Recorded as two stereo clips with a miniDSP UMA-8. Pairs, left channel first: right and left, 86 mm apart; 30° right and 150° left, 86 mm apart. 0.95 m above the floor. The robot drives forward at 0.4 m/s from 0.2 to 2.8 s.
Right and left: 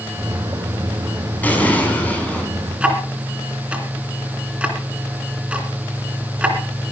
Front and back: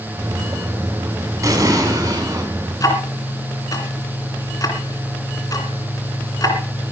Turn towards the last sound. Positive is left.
turn(degrees=15)